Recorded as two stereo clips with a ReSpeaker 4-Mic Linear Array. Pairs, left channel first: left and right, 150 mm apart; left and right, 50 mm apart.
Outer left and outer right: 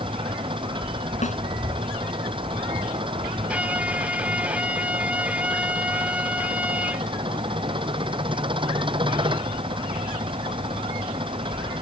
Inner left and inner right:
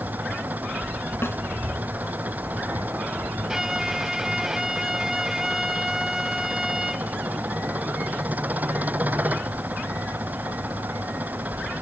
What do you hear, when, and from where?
0.0 s an engine running: 35° right (ahead or behind)
1.2 s a snare drum: 50° left (ahead or behind)
3.5 s a violin: 10° right (ahead or behind)